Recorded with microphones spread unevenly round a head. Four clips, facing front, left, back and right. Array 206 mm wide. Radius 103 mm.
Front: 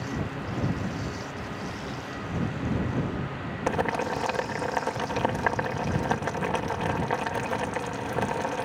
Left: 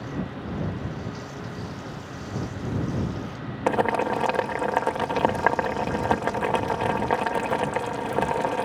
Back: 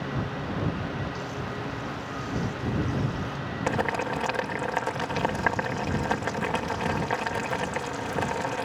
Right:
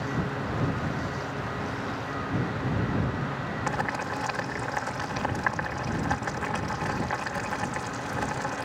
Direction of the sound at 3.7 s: 85° left.